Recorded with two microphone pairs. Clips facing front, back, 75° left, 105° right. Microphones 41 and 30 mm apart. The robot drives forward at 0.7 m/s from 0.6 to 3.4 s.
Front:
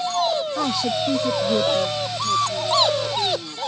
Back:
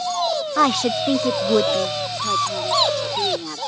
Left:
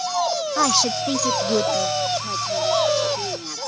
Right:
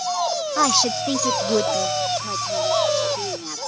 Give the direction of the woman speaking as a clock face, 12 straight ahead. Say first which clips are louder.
Back 4 dB, right 1 dB; 6 o'clock.